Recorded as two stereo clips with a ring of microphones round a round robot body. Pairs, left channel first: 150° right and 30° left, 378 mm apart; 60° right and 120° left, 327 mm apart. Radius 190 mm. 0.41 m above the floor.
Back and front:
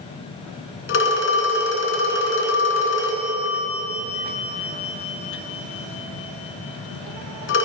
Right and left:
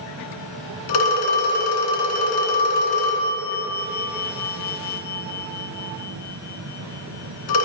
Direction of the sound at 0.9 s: 90° right.